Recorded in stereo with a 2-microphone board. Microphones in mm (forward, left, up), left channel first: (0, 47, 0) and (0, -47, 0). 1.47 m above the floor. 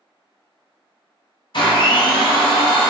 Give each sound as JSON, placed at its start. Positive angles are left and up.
{"t": 1.5, "sound": "a blender", "side_deg": 55, "distance_m": 0.8}